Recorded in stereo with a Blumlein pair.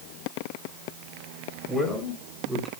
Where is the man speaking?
Straight ahead, 4.5 m; by 2.7 s 10° right, 4 m.